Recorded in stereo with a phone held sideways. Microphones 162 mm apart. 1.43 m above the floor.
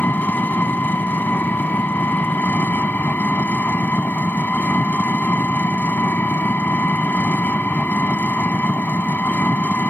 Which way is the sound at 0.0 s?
10° left (ahead or behind).